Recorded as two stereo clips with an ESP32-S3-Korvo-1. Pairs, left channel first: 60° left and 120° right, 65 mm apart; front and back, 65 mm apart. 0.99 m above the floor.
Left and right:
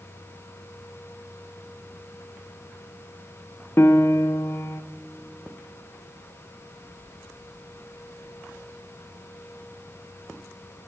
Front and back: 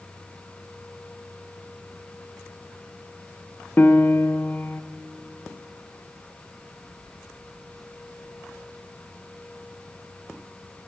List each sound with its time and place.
3.8 s a piano: 40° left, 0.5 m